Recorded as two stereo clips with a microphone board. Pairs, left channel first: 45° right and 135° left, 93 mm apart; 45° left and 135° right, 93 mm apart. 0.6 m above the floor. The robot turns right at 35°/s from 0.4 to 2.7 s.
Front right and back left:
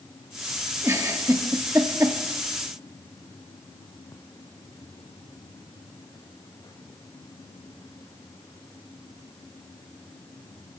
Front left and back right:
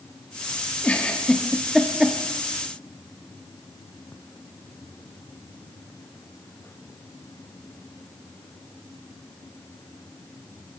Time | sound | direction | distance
0.8 | a giggle | 105° left | 1.3 m